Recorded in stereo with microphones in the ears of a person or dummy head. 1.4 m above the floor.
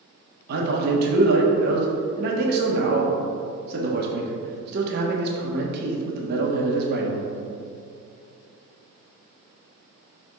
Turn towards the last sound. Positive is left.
turn(degrees=-55)  # may be behind; listen again after turning